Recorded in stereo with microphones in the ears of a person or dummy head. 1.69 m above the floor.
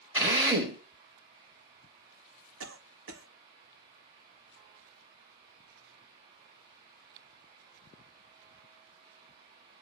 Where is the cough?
85° right, 1.4 m.